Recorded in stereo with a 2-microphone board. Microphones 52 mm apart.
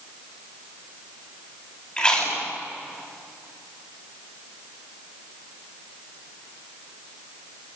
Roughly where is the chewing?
Centre.